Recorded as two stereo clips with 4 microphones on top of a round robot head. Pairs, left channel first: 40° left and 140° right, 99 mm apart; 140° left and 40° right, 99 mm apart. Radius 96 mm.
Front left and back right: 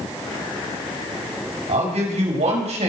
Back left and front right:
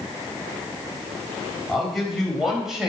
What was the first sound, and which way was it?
A man speaking, 130° right.